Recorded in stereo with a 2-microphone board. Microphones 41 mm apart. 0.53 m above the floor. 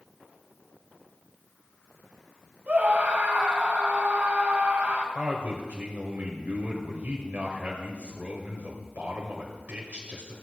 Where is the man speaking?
40° right (ahead or behind), 2 m.